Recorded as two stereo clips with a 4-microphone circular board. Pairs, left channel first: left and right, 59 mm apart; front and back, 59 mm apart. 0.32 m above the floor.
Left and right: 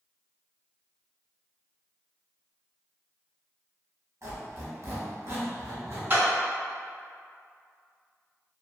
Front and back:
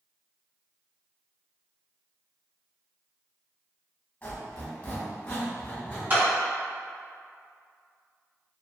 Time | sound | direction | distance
4.2 | a squeak | 60° right | 1.1 m
6.1 | a clap | 140° right | 1.9 m